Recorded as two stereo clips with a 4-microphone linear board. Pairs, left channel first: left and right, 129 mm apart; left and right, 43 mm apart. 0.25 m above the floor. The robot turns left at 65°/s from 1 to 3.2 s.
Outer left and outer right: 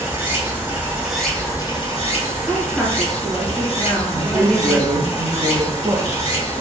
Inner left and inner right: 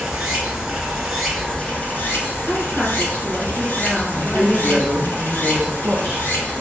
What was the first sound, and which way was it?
Running water, 170° right.